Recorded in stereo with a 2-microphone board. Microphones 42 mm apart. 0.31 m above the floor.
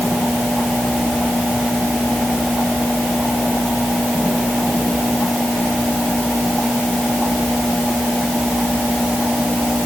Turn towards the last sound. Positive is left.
No sound to turn to.